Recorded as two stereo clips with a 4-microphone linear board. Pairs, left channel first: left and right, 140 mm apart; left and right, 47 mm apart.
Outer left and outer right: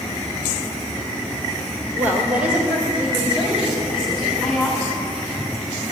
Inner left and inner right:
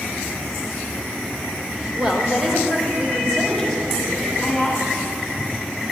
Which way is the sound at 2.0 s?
15° right (ahead or behind).